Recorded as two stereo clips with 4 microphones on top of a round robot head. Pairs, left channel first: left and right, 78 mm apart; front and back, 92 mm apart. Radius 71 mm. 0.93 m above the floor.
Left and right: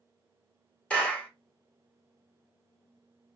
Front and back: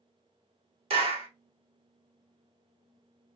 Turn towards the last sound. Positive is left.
turn(degrees=170)